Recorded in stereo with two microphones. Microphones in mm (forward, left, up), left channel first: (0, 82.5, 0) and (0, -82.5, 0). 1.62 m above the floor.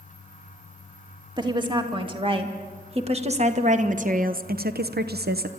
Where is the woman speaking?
25° right (ahead or behind), 2.5 m; by 5.5 s 70° right (ahead or behind), 0.8 m.